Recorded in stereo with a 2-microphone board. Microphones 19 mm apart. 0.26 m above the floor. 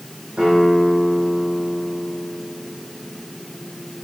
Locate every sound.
0.4 s a guitar: 65° right (ahead or behind), 6.5 m